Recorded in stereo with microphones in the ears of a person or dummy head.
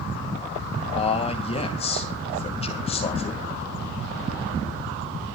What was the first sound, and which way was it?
A man speaking, 25° left (ahead or behind).